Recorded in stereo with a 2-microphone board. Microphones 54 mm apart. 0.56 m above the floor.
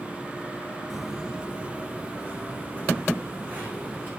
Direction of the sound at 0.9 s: Centre (ahead or behind).